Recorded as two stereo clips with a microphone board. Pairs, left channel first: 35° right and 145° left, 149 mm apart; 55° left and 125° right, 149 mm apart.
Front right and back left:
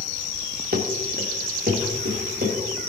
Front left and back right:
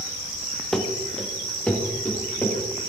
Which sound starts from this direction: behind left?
Running footsteps, at 0.7 s.